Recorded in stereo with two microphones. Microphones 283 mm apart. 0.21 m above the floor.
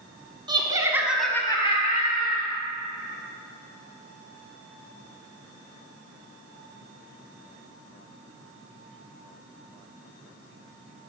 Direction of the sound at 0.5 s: 15° right (ahead or behind).